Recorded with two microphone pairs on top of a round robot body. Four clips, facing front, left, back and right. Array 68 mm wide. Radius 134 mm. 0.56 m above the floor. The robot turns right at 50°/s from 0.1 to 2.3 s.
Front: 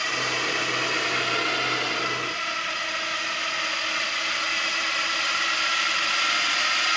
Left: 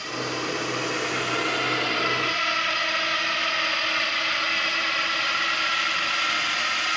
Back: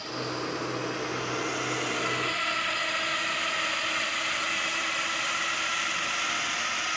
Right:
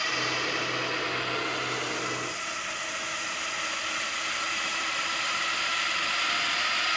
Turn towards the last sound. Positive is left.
turn(degrees=40)